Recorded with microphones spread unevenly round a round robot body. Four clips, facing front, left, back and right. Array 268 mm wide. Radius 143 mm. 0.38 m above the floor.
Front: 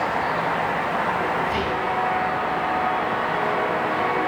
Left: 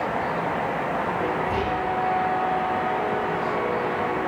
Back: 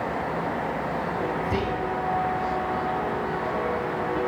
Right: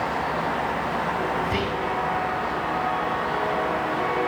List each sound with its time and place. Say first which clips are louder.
1.4 s whispering: left 1 dB, front 3 dB; 175° right, 5.5 m